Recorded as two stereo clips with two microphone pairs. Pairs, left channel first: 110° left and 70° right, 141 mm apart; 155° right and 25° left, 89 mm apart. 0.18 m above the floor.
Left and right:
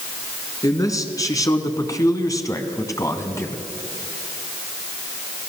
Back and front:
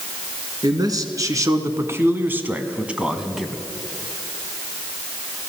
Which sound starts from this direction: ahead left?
A man speaking, at 0.6 s.